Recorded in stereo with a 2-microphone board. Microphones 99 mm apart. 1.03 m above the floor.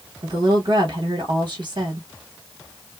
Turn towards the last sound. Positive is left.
turn(degrees=-60)  # may be behind; listen again after turning